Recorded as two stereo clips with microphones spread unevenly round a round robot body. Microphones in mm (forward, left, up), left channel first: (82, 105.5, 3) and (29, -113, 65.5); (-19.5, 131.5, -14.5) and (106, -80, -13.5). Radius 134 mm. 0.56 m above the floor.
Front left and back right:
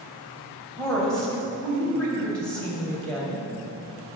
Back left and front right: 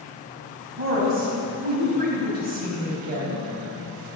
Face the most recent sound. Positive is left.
turn(degrees=-5)